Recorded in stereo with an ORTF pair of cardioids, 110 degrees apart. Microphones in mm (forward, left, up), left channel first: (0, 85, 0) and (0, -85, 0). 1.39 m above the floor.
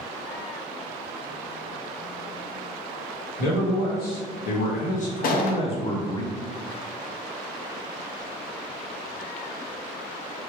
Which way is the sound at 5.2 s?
60° left.